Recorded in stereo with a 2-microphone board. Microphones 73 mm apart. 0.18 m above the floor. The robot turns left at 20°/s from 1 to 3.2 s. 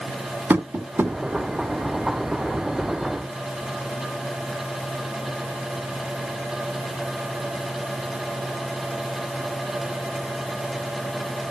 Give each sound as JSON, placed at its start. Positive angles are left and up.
{"t": 0.5, "sound": "tapping", "side_deg": -30, "distance_m": 1.5}